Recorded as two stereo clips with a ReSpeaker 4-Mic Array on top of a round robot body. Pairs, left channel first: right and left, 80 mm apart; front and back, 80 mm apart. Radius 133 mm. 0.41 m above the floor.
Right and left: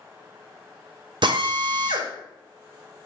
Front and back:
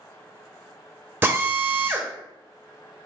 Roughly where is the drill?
Behind left.